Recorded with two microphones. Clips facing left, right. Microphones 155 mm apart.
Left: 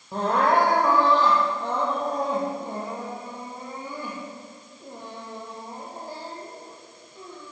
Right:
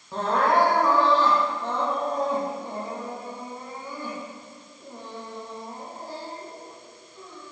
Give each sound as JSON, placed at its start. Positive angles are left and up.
{"t": 0.1, "sound": "crying", "side_deg": 15, "distance_m": 2.5}